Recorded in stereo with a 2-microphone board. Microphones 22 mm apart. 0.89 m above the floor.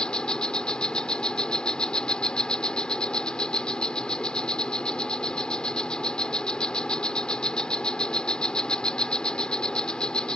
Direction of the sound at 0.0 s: 55° left (ahead or behind).